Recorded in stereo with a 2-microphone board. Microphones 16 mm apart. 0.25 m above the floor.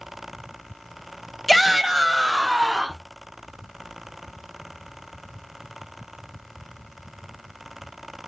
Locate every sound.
1.5 s a shout: 5° left (ahead or behind), 1.0 m; by 3.0 s 50° right (ahead or behind), 1.8 m